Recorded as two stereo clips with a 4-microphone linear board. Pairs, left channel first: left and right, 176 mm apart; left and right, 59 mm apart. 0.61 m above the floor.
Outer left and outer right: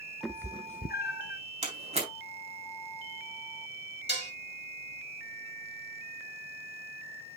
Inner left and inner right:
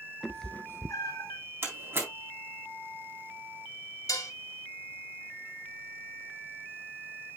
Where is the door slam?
40° right (ahead or behind), 3.5 m.